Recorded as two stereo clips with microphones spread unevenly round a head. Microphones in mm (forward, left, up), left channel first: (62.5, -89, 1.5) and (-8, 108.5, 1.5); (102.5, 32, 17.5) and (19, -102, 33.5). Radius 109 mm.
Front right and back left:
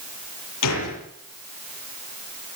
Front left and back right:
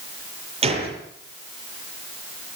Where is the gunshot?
75° right, 8 m.